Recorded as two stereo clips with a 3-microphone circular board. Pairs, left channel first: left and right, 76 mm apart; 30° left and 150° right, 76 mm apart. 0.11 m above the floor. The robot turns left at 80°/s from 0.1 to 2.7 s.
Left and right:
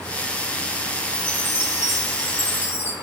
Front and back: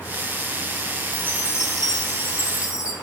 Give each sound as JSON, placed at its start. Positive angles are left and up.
{"t": 1.1, "sound": "a chime", "azimuth_deg": 170, "distance_m": 2.0}